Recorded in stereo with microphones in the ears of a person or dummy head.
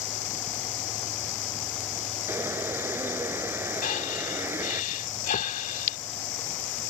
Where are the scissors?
No scissors in this recording.